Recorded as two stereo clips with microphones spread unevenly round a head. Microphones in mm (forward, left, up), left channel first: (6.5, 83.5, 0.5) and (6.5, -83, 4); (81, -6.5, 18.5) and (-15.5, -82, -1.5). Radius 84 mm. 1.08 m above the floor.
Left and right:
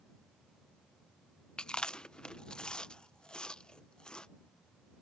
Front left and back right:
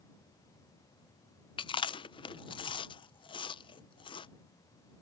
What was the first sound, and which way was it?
Chewing, 10° left.